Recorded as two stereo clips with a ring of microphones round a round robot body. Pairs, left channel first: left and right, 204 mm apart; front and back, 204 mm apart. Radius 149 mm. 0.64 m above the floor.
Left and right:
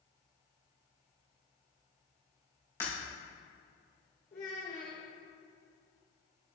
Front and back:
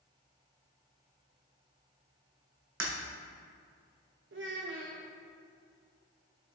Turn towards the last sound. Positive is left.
turn(degrees=150)